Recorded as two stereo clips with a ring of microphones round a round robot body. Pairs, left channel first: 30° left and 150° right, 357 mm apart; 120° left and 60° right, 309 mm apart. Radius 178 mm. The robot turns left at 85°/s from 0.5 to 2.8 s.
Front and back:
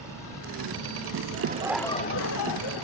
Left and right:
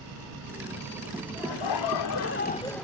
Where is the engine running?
50° right; by 2.8 s 110° left.